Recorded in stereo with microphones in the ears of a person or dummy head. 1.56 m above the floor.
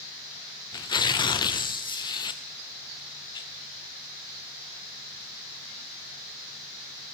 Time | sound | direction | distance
0.7 | tearing paper | 25° left (ahead or behind) | 0.6 m